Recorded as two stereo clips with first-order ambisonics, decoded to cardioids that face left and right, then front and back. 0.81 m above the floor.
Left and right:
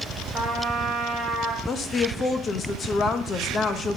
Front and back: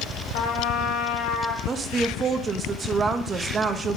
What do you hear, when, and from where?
0.3 s a trumpet: 10° right, 2.5 m
1.7 s a woman speaking: 130° left, 0.6 m